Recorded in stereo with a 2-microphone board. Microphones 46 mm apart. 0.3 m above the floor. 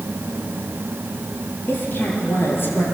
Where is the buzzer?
I don't hear a buzzer.